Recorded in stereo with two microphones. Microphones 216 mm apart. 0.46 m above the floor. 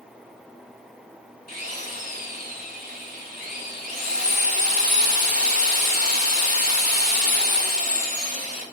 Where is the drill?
45° right (ahead or behind), 4 m.